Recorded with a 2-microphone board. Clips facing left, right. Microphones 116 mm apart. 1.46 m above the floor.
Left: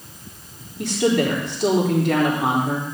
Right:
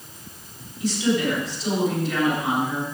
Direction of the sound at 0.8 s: 70° left (ahead or behind).